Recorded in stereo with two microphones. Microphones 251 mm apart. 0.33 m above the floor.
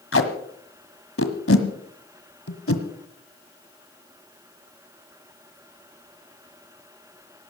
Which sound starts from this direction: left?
Tape being pulled, at 0.1 s.